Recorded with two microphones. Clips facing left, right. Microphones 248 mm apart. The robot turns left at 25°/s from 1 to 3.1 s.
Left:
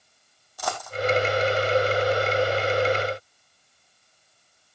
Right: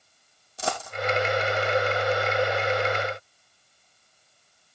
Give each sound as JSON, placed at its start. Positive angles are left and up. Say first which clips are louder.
{"t": 0.6, "sound": "a dropped coin", "louder": "right 1 dB", "side_deg": -25, "distance_m": 3.0}